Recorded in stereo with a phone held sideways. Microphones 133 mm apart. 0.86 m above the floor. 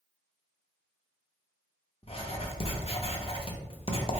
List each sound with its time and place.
2.0 s writing: 45° left (ahead or behind), 0.5 m